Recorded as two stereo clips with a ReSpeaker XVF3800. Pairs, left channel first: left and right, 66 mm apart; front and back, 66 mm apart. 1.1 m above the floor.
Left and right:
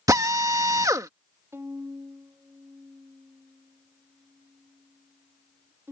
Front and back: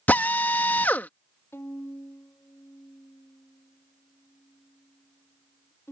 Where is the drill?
60° right.